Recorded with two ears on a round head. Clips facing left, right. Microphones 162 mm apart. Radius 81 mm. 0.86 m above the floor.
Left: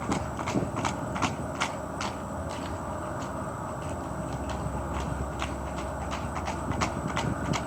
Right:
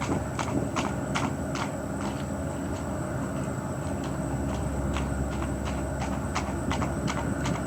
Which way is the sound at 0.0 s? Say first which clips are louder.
Right 2 dB; 25° right (ahead or behind).